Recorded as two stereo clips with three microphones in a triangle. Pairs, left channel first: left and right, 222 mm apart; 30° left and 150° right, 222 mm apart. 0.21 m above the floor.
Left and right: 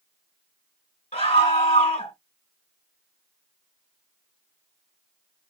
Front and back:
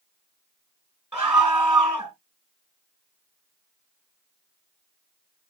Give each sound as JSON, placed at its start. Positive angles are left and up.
{"t": 1.1, "sound": "a scream", "azimuth_deg": 130, "distance_m": 1.3}